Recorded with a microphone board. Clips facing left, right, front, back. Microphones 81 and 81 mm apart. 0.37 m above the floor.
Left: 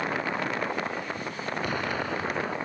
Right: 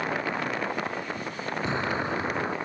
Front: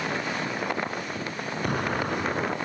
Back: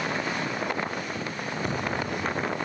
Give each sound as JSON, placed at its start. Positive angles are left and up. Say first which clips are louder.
{"t": 1.6, "sound": "an explosion", "louder": "right 3 dB, front 3 dB", "azimuth_deg": -25}